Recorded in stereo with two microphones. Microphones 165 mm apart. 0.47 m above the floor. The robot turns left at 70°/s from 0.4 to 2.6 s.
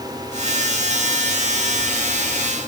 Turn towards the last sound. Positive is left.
No sound to turn to.